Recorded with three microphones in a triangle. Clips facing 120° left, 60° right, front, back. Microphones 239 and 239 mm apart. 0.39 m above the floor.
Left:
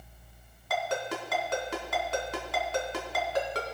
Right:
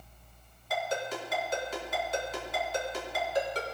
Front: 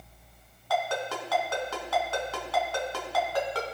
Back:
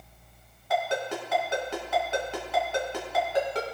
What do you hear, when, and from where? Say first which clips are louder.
0.7 s a ringtone: left 1 dB, back 2 dB; 110° left, 2 m